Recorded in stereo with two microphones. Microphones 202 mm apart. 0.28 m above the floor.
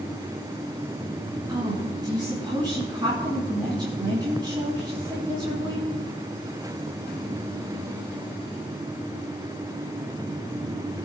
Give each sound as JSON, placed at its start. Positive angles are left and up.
{"t": 1.5, "sound": "a woman speaking", "side_deg": -25, "distance_m": 3.5}